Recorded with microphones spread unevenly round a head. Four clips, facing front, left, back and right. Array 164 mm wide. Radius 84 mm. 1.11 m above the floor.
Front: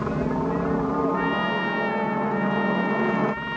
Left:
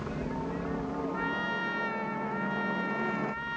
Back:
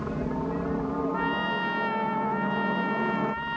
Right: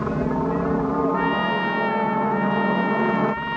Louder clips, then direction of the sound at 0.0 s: Right 12 dB, front 5 dB; 55° right.